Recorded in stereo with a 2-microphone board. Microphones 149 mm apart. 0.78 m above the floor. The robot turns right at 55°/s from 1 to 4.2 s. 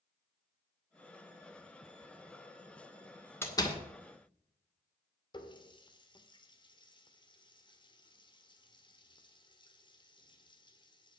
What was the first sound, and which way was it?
A door slam, 15° left (ahead or behind).